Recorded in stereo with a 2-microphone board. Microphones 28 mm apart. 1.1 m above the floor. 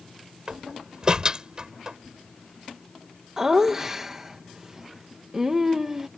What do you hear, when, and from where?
0.5 s a door slam: 35° right (ahead or behind)
3.4 s laughter: 25° right (ahead or behind)